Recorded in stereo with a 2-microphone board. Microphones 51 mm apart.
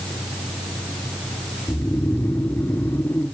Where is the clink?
No clink in this recording.